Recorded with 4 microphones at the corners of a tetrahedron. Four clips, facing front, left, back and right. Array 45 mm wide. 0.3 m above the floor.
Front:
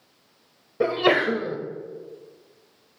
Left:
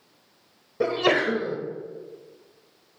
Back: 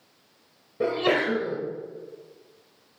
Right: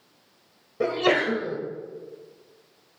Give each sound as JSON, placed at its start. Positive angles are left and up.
{"t": 0.8, "sound": "a sneeze", "azimuth_deg": 5, "distance_m": 1.3}